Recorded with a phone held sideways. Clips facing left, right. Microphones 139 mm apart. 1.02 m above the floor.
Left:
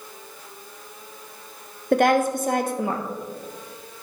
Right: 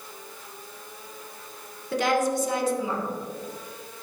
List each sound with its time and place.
1.9 s a woman speaking: 60° left (ahead or behind), 0.8 m